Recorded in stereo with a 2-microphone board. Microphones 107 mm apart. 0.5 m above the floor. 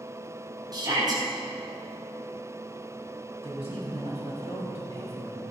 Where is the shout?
40° right (ahead or behind), 4 m.